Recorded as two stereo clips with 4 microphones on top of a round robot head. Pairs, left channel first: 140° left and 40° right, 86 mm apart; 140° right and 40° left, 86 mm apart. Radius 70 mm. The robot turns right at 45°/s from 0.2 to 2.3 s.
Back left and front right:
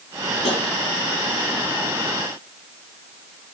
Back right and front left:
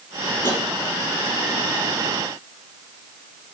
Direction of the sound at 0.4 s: 155° left.